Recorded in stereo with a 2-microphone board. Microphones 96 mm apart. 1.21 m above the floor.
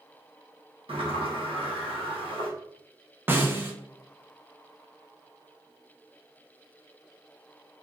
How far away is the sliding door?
About 1.1 m.